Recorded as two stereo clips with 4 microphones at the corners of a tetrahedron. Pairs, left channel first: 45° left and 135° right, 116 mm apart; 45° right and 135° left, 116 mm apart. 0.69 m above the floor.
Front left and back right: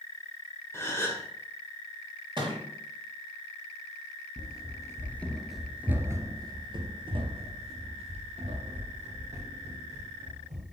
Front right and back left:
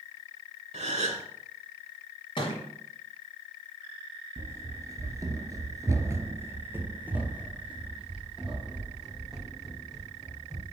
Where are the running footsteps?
75° left, 0.9 m; by 10.6 s 140° right, 2.5 m.